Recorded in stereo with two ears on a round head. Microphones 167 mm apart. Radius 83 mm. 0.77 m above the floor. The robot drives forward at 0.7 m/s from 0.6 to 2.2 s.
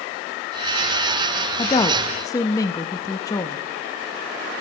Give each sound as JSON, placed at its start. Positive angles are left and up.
{"t": 1.6, "sound": "a woman speaking", "side_deg": 25, "distance_m": 0.7}